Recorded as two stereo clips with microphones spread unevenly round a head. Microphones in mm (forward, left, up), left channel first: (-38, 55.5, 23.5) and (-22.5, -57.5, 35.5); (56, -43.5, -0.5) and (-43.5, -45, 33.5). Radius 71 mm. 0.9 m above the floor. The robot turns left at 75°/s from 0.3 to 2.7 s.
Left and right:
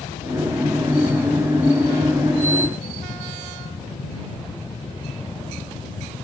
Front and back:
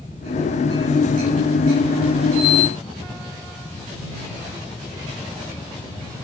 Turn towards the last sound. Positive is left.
No sound to turn to.